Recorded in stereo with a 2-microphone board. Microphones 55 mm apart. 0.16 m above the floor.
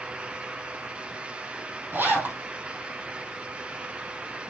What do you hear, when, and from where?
1.9 s a zipper: 40° right (ahead or behind), 3 m